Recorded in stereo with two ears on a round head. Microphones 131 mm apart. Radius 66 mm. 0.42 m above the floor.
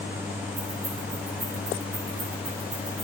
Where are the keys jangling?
70° right (ahead or behind), 2 m.